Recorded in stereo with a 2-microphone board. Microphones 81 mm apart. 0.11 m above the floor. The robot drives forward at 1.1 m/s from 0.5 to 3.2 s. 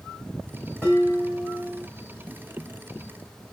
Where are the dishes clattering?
10° left (ahead or behind), 5.5 m; by 1.8 s 15° left (ahead or behind), 4.5 m.